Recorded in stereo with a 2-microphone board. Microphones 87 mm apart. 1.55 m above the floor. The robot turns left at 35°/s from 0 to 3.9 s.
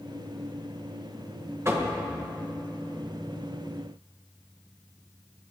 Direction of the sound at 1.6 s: 30° right (ahead or behind).